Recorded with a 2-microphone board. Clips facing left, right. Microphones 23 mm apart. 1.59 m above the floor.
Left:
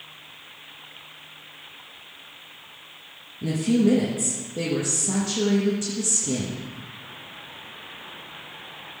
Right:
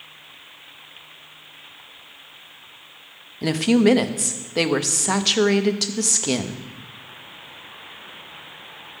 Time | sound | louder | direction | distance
3.4 | a woman speaking | right 4 dB | 80° right | 0.8 m